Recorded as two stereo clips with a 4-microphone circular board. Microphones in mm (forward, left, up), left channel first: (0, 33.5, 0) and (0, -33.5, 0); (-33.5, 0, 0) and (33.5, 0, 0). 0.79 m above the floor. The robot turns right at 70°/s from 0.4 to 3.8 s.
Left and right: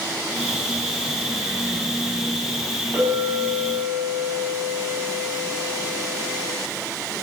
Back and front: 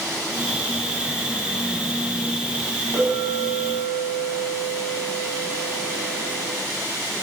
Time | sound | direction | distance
2.9 | a clink | 30° right | 4 m